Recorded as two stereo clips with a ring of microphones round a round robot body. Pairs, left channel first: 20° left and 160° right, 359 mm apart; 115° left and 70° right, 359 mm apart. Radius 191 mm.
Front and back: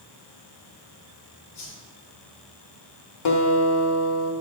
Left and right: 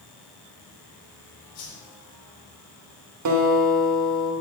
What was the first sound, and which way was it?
A whoosh, 70° left.